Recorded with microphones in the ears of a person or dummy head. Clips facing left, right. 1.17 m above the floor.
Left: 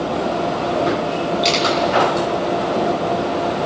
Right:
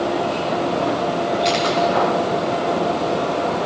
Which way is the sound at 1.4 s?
65° left (ahead or behind).